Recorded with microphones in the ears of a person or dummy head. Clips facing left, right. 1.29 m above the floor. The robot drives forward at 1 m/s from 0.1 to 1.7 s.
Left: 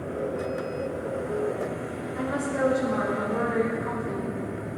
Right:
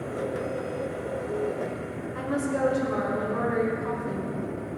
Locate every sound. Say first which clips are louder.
2.1 s a woman speaking: even; 55° right (ahead or behind), 5 m